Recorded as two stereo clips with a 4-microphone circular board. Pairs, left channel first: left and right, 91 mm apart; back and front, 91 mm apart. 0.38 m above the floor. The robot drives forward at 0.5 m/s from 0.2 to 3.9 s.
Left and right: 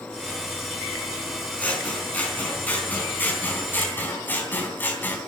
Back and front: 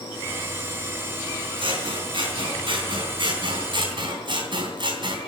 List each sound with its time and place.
1.6 s scissors: 15° left, 4.5 m; by 5.2 s 20° left, 3.5 m